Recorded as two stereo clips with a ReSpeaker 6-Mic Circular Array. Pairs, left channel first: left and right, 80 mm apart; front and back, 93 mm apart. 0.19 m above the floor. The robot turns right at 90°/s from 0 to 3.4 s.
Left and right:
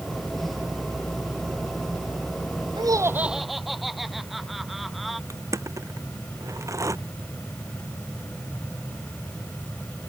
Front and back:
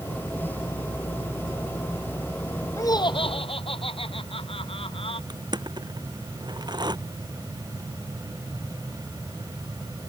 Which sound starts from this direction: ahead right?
Laughter, at 2.8 s.